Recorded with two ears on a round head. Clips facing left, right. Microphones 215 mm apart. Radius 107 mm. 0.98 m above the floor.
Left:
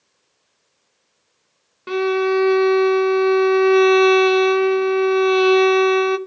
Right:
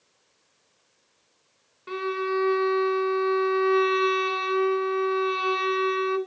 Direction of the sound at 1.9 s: 65° left (ahead or behind).